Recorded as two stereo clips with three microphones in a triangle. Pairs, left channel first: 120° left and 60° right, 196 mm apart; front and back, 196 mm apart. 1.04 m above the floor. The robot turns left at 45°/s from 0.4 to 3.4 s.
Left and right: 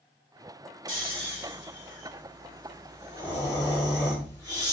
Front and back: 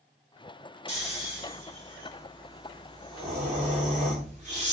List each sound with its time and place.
0.9 s snoring: 15° right, 2 m; by 4.7 s 130° right, 2 m